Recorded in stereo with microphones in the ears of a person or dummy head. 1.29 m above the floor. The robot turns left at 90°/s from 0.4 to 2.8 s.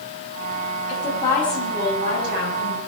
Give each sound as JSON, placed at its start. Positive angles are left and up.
{"t": 0.9, "sound": "a woman speaking", "azimuth_deg": 60, "distance_m": 8.5}